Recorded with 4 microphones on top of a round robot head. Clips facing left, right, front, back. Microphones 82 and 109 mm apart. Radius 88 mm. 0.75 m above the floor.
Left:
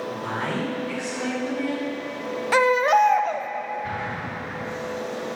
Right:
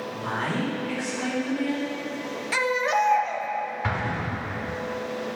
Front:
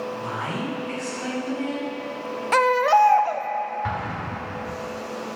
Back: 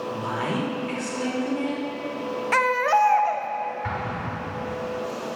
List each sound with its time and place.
0.1 s a woman speaking: 160° left, 3 m
2.5 s a baby crying: 65° left, 0.5 m
3.8 s an explosion: 75° right, 0.9 m